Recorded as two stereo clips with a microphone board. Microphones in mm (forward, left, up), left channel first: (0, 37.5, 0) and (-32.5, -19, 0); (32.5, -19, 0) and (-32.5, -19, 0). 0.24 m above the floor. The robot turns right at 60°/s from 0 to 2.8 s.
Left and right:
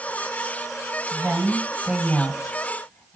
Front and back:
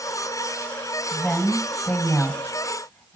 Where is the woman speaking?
95° right, 1.4 m; by 3.1 s 5° left, 1.4 m.